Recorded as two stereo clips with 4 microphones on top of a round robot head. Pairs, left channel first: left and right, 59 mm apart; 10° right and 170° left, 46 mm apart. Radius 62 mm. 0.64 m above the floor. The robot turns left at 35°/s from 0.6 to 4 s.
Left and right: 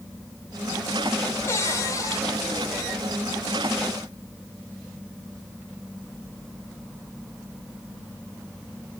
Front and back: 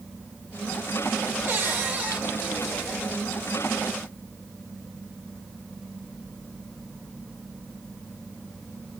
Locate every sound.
1.5 s a cupboard door: 135° left, 2.5 m; by 2.2 s 105° left, 2.5 m